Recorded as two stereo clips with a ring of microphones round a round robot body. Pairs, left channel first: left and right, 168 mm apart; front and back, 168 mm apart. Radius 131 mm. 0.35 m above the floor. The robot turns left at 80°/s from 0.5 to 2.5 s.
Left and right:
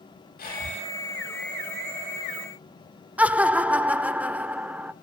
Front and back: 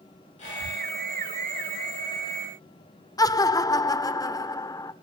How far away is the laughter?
About 0.9 m.